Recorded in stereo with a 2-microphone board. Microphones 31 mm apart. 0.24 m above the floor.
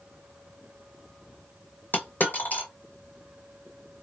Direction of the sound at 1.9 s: 55° left (ahead or behind).